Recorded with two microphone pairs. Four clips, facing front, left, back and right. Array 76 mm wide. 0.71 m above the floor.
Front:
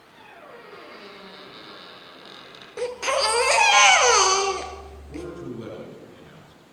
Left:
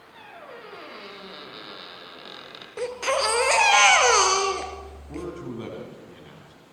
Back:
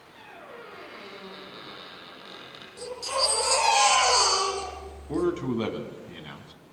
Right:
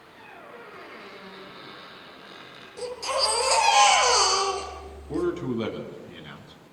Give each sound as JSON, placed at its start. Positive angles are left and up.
{"t": 0.1, "sound": "a squeak", "azimuth_deg": 105, "distance_m": 8.5}
{"t": 2.8, "sound": "a baby crying", "azimuth_deg": 40, "distance_m": 4.0}
{"t": 5.1, "sound": "a man speaking", "azimuth_deg": -175, "distance_m": 5.0}